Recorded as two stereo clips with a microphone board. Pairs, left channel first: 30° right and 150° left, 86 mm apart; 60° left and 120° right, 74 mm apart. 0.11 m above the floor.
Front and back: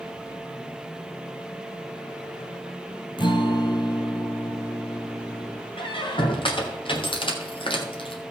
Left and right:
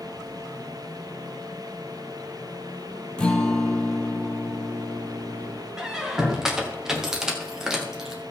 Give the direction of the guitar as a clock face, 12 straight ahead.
1 o'clock.